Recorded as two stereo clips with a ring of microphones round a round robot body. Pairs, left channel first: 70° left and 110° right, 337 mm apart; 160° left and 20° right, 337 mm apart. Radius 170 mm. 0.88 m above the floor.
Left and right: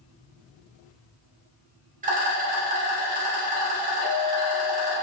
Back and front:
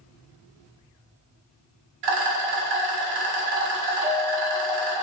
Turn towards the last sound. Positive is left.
turn(degrees=40)